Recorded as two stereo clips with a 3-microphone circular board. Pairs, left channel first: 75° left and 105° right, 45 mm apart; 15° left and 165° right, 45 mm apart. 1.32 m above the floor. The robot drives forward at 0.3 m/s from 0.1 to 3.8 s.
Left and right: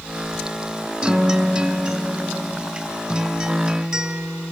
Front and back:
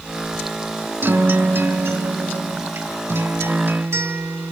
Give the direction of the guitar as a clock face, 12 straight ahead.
6 o'clock.